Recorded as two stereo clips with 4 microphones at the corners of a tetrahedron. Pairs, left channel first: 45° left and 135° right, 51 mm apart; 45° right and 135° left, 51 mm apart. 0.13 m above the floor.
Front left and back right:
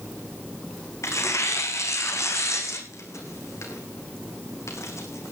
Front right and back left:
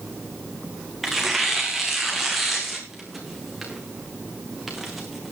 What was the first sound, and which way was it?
Tearing paper, 50° left.